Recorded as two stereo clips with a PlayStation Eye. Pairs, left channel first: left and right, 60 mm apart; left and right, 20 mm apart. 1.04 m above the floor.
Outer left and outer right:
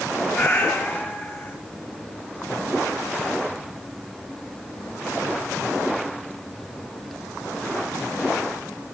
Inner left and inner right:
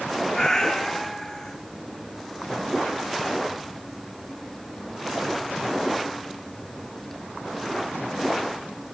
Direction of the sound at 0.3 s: 35° left (ahead or behind).